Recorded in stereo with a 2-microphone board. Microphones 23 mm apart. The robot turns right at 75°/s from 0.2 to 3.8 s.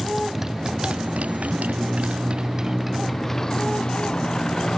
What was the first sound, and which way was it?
A motorcycle, 5° right (ahead or behind).